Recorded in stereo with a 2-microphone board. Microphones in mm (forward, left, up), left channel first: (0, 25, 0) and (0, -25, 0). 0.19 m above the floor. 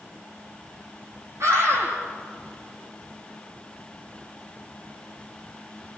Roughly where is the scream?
Right.